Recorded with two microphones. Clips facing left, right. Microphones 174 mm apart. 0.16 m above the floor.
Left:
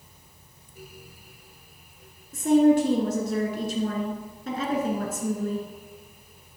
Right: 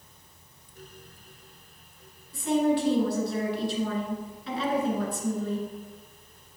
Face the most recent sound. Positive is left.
turn(degrees=45)  # may be behind; listen again after turning